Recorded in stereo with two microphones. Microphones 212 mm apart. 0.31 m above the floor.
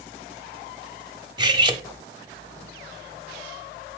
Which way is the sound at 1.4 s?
20° right (ahead or behind).